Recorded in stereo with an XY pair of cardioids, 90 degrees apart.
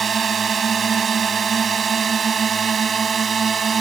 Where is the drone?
50° right; by 3.8 s 45° right.